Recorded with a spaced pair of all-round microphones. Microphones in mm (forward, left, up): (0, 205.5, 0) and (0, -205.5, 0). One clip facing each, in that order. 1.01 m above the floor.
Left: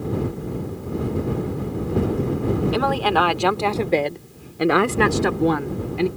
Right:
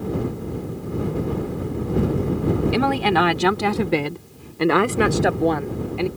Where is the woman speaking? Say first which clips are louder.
Right 1 dB; 40° right (ahead or behind); by 6.1 s 30° left (ahead or behind).